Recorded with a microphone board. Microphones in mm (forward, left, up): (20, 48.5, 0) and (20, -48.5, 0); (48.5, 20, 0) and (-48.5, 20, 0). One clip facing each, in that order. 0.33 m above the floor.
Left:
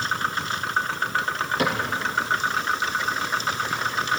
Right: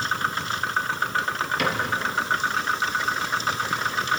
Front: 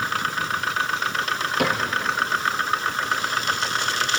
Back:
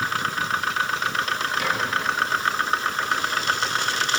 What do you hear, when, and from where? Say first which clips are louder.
1.6 s a cupboard door: left 2 dB, front 6 dB; 35° left, 5 m